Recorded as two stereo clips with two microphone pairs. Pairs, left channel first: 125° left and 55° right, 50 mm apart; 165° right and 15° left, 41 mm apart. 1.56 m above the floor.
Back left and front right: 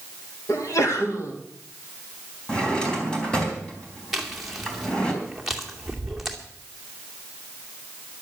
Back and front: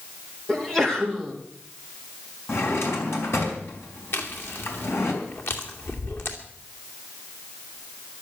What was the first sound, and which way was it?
A sneeze, 115° left.